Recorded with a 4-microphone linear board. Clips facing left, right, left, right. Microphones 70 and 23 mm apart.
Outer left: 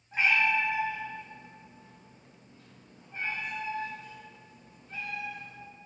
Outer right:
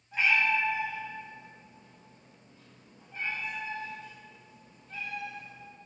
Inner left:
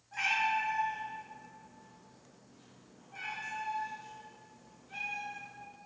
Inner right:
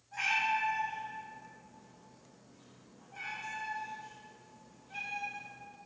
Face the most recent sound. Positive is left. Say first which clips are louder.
# outer left 1 dB, even
turn(degrees=25)  # may be behind; listen again after turning